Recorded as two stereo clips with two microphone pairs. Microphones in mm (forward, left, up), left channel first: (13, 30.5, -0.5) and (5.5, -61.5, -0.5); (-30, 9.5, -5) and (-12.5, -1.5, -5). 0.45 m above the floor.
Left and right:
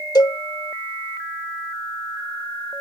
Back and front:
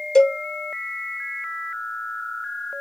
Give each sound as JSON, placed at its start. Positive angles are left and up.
{"t": 0.1, "sound": "a cowbell", "azimuth_deg": 110}